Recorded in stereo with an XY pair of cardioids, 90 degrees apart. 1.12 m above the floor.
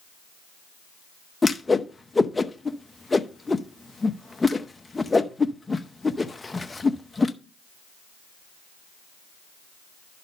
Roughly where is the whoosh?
Ahead.